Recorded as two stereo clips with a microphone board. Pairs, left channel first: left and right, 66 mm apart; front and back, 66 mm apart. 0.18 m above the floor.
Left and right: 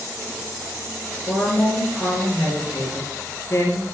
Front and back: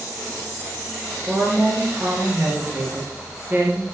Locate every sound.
1.3 s a woman speaking: 130° left, 3 m